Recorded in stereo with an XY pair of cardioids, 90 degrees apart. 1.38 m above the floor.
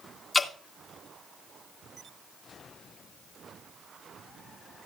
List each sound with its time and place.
0.3 s dripping: 25° left, 2 m